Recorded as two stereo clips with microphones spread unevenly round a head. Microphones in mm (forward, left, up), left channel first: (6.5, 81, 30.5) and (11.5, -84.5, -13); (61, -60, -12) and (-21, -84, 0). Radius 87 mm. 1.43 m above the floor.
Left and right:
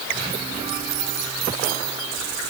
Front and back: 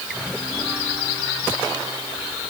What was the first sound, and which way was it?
Only background noise.